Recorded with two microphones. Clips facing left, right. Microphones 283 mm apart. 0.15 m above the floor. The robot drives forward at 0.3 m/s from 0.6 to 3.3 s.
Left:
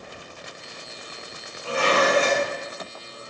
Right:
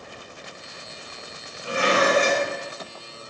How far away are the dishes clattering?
About 0.7 m.